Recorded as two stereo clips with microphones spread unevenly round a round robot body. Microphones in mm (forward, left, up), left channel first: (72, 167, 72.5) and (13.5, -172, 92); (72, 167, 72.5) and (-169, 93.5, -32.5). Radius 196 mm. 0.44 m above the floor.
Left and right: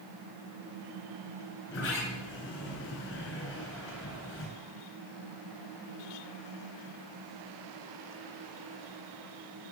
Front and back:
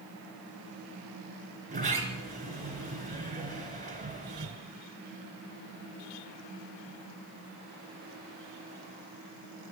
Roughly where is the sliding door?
Behind left.